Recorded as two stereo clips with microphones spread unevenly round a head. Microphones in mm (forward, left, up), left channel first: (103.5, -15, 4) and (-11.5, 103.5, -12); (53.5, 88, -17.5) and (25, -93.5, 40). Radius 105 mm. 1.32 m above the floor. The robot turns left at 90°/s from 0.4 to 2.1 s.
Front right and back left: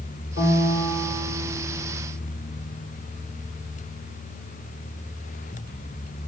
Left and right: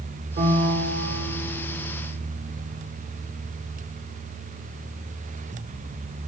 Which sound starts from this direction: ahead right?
A piano, at 0.4 s.